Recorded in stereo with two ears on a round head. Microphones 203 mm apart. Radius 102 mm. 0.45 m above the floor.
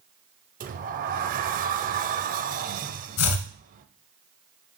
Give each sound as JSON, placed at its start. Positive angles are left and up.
{"t": 0.6, "sound": "a sliding door", "side_deg": -35, "distance_m": 0.7}
{"t": 3.2, "sound": "chopping", "side_deg": 65, "distance_m": 1.4}